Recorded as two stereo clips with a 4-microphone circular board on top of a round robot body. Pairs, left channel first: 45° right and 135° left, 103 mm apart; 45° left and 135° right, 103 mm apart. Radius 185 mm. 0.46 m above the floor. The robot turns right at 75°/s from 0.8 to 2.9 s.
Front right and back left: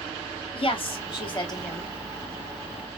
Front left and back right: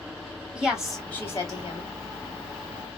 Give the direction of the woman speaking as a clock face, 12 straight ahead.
2 o'clock.